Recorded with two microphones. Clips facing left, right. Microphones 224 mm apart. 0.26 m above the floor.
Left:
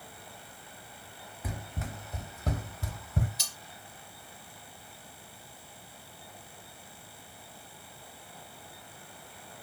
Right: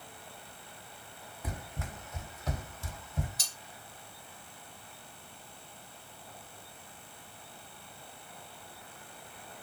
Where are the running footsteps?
10° left (ahead or behind), 1.0 m; by 3.3 s 70° left (ahead or behind), 1.0 m.